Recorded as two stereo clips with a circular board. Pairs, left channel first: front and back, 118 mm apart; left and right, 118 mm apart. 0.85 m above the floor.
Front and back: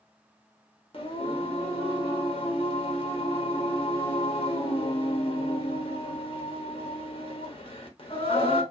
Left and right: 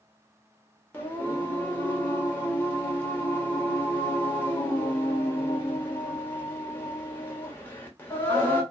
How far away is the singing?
About 1.1 m.